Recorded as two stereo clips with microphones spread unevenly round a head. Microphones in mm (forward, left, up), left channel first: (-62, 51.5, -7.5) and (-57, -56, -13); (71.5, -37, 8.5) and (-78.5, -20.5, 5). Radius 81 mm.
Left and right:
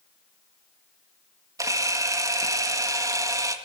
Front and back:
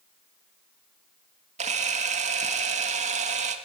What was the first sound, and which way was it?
A camera shutter, 145° right.